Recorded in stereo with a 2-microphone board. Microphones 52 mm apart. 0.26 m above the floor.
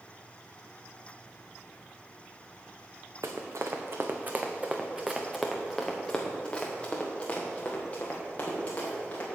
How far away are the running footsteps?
About 1.4 m.